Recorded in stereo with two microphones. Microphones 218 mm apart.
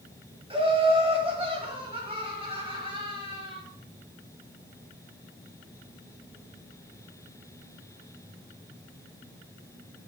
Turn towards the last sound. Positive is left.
turn(degrees=-25)  # may be behind; listen again after turning